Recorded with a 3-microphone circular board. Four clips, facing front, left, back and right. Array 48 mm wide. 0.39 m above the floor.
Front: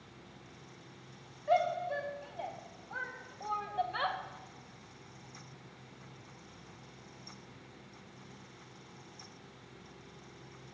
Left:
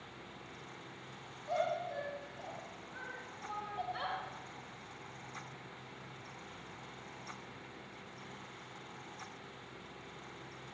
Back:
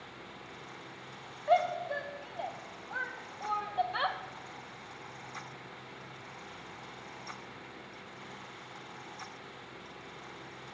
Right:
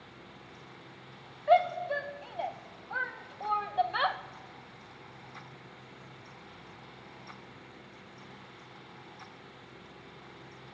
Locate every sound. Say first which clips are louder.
1.5 s a shout: right 11 dB, back 2 dB; 105° right, 4 m